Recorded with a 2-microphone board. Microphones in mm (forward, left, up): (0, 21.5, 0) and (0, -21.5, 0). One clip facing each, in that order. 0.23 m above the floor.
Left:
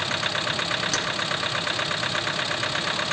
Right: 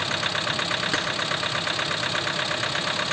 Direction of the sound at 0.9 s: 20° right (ahead or behind).